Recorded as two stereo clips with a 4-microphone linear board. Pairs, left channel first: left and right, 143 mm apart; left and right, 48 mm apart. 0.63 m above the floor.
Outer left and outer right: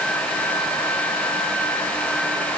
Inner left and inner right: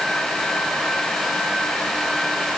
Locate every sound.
Only background noise.